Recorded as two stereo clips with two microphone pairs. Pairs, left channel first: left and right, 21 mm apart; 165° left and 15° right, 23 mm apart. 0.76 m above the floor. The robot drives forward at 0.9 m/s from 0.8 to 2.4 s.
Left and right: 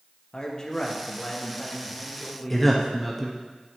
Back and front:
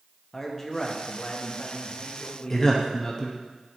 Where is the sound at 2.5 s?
165° left, 0.7 m.